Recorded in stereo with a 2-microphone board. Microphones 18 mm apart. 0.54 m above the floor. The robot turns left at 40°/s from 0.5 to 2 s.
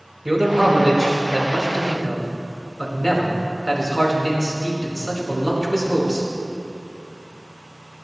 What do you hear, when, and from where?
0.2 s a man speaking: 155° right, 5.5 m; by 6.3 s 145° left, 5.5 m